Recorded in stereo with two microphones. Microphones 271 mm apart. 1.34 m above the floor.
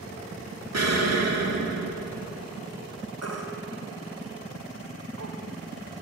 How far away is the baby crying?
About 2 m.